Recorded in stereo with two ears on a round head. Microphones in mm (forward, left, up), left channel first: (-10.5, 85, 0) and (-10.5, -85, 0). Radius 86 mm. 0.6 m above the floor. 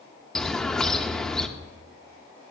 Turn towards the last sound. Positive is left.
turn(degrees=5)  # may be behind; listen again after turning